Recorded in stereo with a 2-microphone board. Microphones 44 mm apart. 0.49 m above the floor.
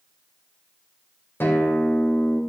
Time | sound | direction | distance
1.4 | a guitar | 55° left (ahead or behind) | 2.5 m